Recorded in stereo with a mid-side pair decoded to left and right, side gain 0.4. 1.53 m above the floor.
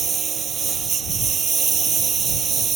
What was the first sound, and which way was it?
A lawn mower, 45° right.